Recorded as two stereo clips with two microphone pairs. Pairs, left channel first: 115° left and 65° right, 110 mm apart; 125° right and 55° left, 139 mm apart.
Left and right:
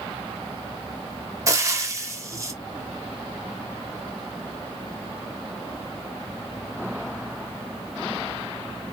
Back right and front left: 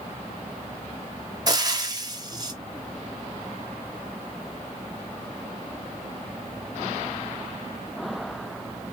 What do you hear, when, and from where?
1.5 s frying: 5° right, 1.1 m